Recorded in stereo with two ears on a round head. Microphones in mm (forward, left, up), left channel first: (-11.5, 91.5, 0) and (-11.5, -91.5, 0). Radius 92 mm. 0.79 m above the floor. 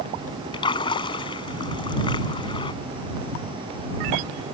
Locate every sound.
0.5 s a splash: 20° left (ahead or behind)